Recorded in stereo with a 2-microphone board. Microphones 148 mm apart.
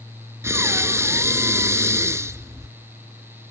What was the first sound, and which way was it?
Breathing, 15° right (ahead or behind).